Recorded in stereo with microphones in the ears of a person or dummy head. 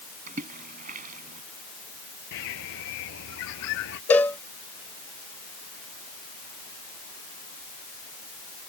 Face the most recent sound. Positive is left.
turn(degrees=10)  # may be behind; listen again after turning